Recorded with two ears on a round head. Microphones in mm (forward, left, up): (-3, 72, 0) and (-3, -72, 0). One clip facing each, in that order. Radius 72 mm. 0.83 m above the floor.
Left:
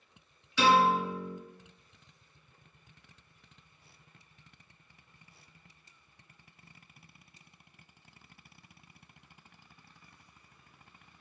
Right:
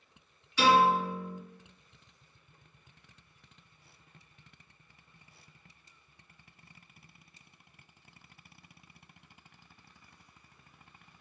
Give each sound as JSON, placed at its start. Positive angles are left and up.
{"t": 0.6, "sound": "a piano", "side_deg": 65, "distance_m": 1.7}